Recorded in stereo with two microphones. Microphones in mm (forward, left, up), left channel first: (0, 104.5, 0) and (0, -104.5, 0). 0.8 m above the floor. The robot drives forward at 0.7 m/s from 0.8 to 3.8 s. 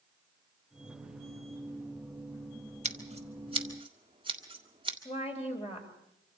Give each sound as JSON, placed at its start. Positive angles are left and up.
{"t": 2.9, "sound": "scissors", "side_deg": -35, "distance_m": 1.4}
{"t": 5.0, "sound": "a woman speaking", "side_deg": 30, "distance_m": 4.5}